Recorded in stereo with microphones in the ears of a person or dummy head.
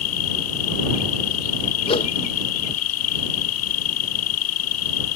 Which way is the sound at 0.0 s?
80° left.